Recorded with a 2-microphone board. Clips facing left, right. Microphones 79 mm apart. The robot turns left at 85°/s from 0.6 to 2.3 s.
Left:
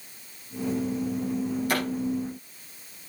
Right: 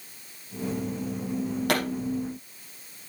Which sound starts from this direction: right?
A pop, at 1.7 s.